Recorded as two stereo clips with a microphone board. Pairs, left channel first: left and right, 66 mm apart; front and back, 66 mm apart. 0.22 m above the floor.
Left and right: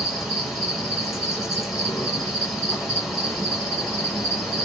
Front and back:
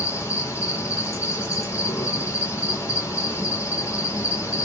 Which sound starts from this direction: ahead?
An insect, at 0.0 s.